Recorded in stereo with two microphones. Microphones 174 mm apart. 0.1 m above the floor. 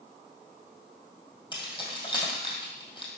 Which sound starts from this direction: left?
Keys jangling, at 1.5 s.